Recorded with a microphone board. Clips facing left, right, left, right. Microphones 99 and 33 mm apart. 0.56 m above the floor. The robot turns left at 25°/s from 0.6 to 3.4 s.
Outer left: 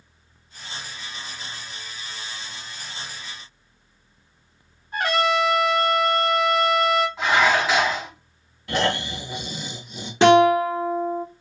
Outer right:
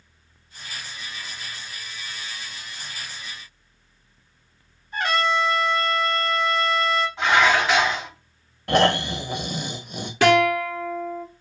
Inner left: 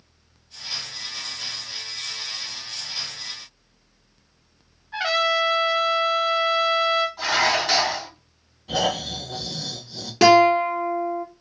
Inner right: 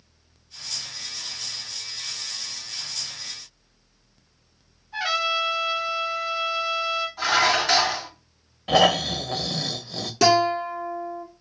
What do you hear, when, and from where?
4.9 s a trumpet: 45° left (ahead or behind), 1.7 m
7.2 s dishes clattering: centre (ahead or behind), 2.5 m
8.7 s snoring: 60° right (ahead or behind), 0.7 m
10.2 s a guitar: 25° left (ahead or behind), 0.9 m